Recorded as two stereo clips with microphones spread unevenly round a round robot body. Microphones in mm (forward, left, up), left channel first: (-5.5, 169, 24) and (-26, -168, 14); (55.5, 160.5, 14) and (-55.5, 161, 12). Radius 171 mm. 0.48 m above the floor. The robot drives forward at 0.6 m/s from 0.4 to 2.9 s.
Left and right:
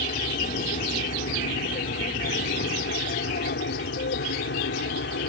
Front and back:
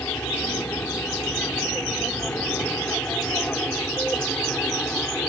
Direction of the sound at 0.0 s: 55° left.